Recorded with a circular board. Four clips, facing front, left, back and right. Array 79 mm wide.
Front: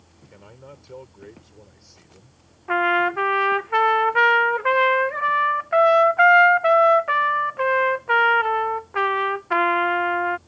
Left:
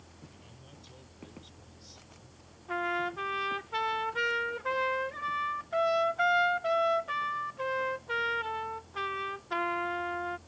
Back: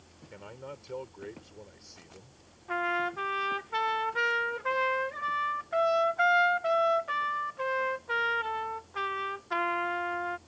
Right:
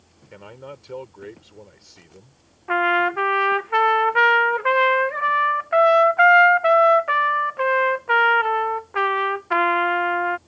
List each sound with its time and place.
0.3 s a man speaking: 95° right
2.7 s a trumpet: 50° right